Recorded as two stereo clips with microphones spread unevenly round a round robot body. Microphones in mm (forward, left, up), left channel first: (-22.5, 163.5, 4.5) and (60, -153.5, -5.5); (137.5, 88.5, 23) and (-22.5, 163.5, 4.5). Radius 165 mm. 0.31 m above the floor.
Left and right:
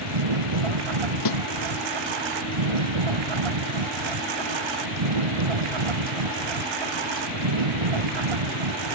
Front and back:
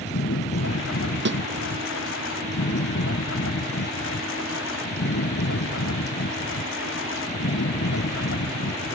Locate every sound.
0.0 s a lawn mower: 65° right
1.2 s a snare drum: 140° left